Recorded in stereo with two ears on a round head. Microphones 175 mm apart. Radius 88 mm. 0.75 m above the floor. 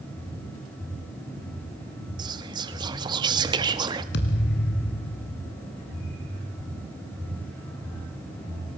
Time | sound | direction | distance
2.2 | whispering | 20° right (ahead or behind) | 1.3 m
4.1 | a thud | 55° left (ahead or behind) | 2 m